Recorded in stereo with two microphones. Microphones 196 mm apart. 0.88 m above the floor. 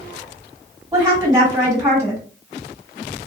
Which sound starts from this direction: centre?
A woman speaking, at 0.9 s.